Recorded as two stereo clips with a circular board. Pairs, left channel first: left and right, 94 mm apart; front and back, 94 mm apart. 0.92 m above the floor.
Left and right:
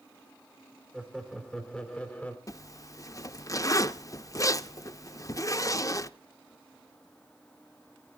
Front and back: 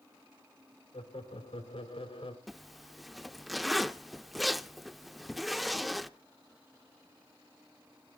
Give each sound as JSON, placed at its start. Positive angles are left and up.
{"t": 0.9, "sound": "laughter", "azimuth_deg": 0, "distance_m": 2.5}
{"t": 2.5, "sound": "a zipper", "azimuth_deg": 90, "distance_m": 0.6}